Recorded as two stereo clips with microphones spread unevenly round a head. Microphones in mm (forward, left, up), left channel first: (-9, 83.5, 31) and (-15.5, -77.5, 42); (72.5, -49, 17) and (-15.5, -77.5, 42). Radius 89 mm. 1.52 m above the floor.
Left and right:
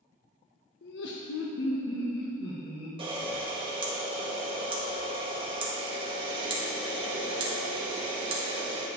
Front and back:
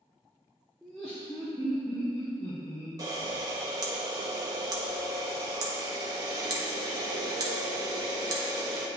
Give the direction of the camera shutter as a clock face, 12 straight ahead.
5 o'clock.